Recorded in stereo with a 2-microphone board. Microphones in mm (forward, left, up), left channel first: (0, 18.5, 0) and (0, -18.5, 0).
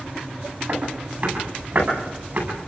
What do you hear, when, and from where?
0.7 s footsteps: 50° right (ahead or behind), 10 m